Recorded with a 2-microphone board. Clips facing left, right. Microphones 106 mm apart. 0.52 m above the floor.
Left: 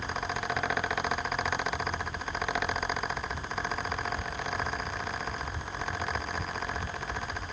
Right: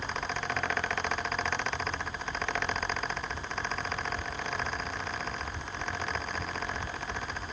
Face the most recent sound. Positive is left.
No sound to turn to.